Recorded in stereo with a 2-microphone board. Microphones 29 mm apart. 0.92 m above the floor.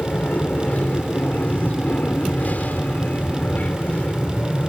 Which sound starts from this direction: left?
An aircraft, at 0.0 s.